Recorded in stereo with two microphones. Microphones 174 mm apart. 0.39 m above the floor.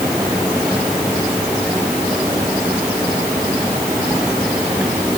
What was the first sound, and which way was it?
Only background noise.